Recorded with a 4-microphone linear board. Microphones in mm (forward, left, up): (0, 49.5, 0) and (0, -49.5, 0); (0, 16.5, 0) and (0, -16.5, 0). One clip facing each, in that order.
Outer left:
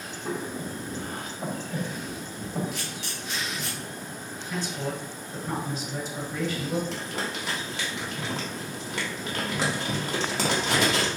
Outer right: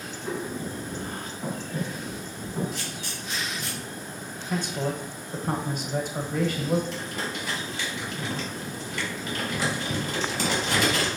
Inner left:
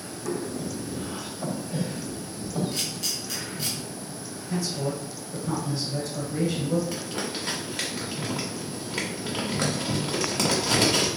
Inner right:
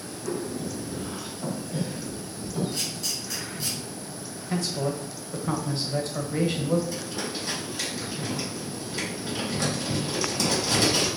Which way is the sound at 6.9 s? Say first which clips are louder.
Even, inner left 1 dB; 75° left (ahead or behind).